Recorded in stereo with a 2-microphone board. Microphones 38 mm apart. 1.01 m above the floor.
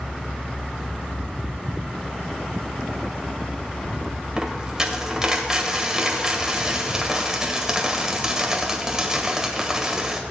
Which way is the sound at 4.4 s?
15° right (ahead or behind).